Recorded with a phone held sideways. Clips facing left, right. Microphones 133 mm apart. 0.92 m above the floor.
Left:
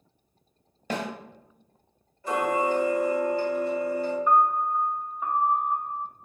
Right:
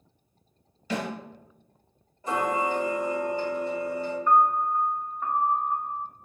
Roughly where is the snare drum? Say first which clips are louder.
Even; left.